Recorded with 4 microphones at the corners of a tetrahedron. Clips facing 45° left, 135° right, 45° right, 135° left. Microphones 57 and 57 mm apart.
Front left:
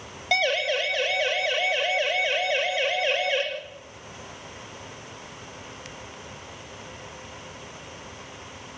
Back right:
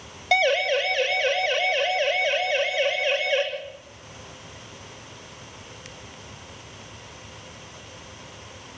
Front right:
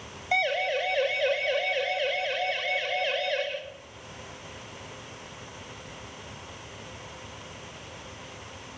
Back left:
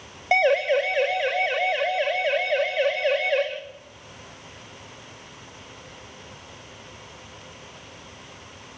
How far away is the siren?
About 4.5 m.